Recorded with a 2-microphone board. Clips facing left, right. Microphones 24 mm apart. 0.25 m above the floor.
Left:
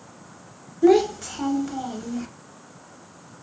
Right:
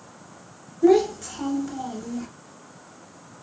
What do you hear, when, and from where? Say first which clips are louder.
0.8 s a child speaking: left 1 dB; 20° left (ahead or behind), 0.5 m